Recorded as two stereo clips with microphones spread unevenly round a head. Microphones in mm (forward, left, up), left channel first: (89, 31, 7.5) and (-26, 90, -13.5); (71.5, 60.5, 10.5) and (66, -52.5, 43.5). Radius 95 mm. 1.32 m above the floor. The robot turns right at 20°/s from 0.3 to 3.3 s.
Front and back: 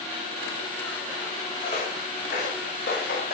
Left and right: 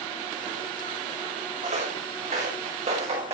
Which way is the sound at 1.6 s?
85° right.